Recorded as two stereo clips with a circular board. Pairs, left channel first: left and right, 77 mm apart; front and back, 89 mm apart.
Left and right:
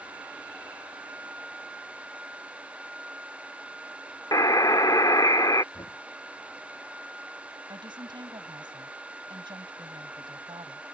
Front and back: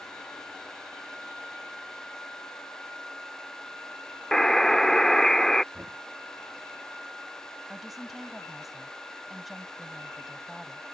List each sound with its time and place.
4.3 s a buzzer: 85° left
5.7 s knocking: 100° left
7.7 s a woman speaking: 90° right